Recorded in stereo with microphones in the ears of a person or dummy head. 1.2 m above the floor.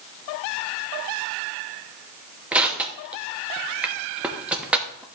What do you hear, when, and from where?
2.5 s crushing: 5° right (ahead or behind), 0.9 m